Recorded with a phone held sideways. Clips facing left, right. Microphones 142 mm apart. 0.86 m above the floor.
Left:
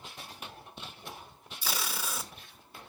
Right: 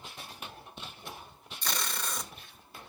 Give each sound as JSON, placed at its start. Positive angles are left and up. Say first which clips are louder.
{"t": 1.6, "sound": "tape being pulled", "louder": "even", "side_deg": 10, "distance_m": 1.1}